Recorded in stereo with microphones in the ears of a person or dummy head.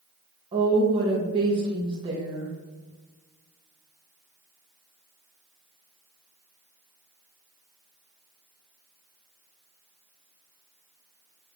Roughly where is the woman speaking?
Right.